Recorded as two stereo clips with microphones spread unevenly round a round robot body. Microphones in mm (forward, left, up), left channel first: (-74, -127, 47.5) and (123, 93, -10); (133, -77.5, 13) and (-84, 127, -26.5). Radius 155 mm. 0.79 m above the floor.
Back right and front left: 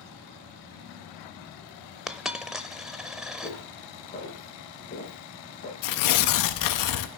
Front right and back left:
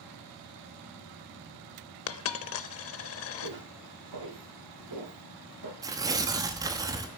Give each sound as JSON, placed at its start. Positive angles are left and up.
{"t": 2.1, "sound": "a dropped coin", "azimuth_deg": -50, "distance_m": 0.7}
{"t": 3.4, "sound": "footsteps", "azimuth_deg": 160, "distance_m": 6.5}
{"t": 5.8, "sound": "tearing paper", "azimuth_deg": -150, "distance_m": 0.7}